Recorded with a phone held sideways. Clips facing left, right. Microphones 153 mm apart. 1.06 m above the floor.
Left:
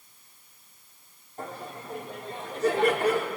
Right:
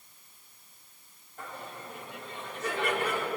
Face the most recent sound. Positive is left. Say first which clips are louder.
# left 4 dB
turn(degrees=35)  # may be behind; listen again after turning